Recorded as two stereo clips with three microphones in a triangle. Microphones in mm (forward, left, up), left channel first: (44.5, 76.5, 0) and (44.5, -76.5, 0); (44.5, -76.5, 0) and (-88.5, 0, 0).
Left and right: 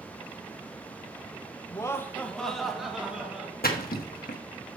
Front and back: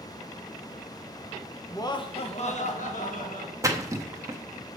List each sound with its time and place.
1.7 s laughter: 35° left, 0.9 m; by 3.5 s 10° right, 2.5 m
3.6 s a splash: 80° left, 1.1 m